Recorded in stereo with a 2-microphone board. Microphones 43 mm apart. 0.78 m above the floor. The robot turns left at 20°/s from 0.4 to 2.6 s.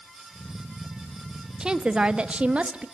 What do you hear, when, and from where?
1.6 s a woman speaking: 20° right (ahead or behind), 1.2 m; by 2.9 s 30° right (ahead or behind), 1.2 m